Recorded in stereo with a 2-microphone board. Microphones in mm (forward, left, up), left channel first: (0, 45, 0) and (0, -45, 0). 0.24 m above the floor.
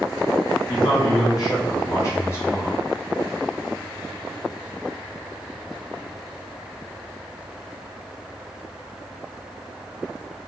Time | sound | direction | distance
0.7 | a man speaking | 55° left (ahead or behind) | 1.6 m